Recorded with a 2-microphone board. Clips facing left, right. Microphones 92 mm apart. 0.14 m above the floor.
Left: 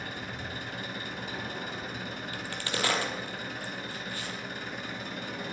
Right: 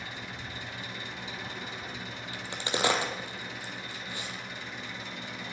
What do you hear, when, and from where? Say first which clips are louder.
0.0 s an engine running: left 3 dB; 50° left (ahead or behind), 1.6 m
2.3 s a crack: right 3 dB; 20° right (ahead or behind), 1.7 m